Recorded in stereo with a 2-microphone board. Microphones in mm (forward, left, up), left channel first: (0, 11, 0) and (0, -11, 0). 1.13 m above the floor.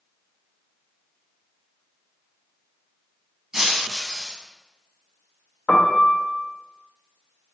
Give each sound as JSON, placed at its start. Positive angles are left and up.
{"t": 3.5, "sound": "breaking glass", "side_deg": -35, "distance_m": 1.3}
{"t": 5.7, "sound": "a piano", "side_deg": 70, "distance_m": 0.7}